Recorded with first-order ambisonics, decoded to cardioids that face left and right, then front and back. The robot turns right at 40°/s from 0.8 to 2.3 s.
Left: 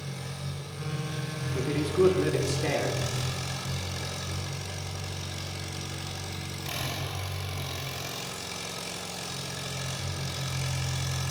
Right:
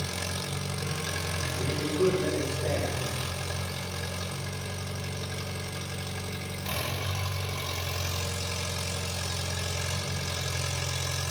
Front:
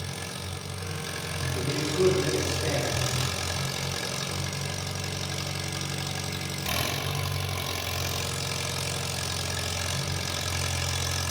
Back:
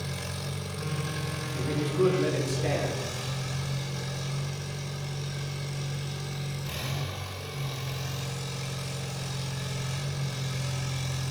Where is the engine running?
65° right, 1.9 m; by 11.3 s 5° right, 1.9 m.